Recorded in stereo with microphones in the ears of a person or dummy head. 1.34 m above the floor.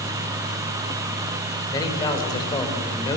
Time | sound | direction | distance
1.7 | a man speaking | 25° left (ahead or behind) | 5 m